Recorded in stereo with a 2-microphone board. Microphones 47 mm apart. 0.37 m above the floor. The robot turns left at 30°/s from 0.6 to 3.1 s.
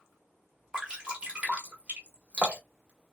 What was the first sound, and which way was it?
Dripping, 15° right (ahead or behind).